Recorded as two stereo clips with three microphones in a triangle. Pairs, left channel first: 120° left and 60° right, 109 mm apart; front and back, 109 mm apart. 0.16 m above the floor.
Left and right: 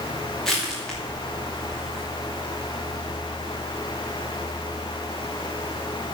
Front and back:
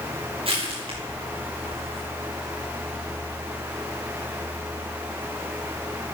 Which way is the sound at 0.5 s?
155° right.